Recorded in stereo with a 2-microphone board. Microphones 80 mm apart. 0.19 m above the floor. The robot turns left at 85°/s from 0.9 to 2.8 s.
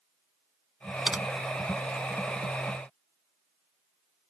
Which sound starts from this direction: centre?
Typing on a keyboard, at 1.1 s.